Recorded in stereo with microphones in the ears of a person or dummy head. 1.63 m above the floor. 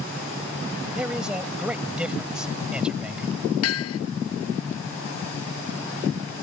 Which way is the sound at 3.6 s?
80° left.